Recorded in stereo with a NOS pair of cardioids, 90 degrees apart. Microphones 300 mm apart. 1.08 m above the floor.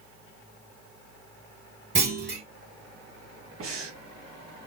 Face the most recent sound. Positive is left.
turn(degrees=-50)